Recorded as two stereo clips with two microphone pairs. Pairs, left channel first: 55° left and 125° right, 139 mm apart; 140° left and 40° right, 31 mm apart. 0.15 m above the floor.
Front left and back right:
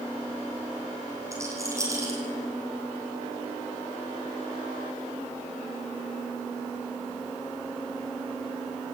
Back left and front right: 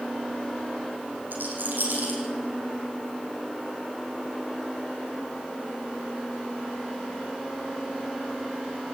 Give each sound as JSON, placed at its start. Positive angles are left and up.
{"t": 1.3, "sound": "a rattle", "azimuth_deg": -55, "distance_m": 6.0}